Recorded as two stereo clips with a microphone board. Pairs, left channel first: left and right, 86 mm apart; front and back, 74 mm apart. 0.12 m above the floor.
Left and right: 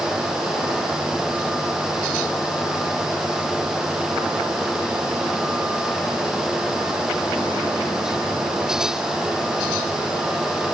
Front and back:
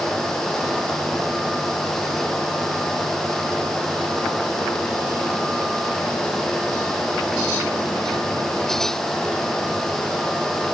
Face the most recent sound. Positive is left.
No sound to turn to.